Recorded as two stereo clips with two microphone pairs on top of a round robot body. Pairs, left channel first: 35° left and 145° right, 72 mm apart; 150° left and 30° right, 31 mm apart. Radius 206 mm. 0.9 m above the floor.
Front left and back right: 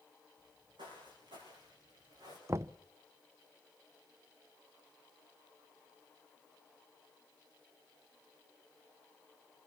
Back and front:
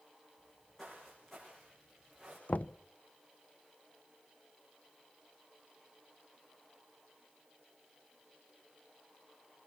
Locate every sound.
0.4 s footsteps: 130° right, 5 m; by 2.4 s 125° right, 6 m
2.5 s knocking: 170° left, 0.6 m